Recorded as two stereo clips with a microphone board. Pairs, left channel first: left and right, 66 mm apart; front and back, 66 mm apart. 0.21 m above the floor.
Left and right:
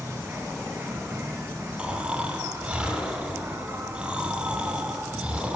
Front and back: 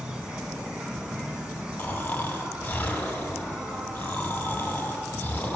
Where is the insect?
110° right, 1.7 m.